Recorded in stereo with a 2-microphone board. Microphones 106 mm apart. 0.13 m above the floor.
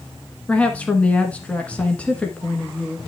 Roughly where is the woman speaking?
Centre.